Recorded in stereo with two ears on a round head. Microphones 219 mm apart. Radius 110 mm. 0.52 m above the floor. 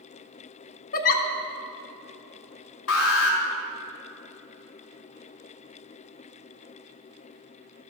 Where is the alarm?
60° left (ahead or behind), 2 m.